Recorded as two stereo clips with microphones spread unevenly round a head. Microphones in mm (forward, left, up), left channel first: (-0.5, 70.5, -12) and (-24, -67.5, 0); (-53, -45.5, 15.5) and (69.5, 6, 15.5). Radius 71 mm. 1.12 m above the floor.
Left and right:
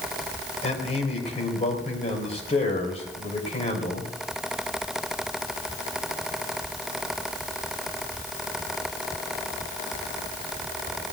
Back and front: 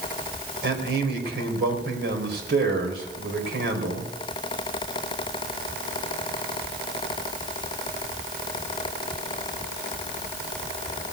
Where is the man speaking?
30° left, 4 m.